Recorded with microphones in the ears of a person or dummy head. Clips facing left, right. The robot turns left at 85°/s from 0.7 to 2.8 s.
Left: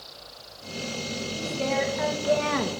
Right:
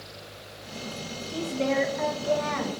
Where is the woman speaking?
125° right, 1.7 m; by 2.7 s 115° left, 1.7 m.